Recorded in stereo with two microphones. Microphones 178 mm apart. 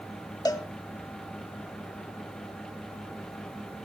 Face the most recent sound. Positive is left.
turn(degrees=20)  # may be behind; listen again after turning